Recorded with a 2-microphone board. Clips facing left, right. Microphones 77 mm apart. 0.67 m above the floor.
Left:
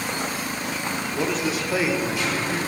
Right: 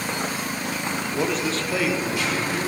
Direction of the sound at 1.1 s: 10° right (ahead or behind).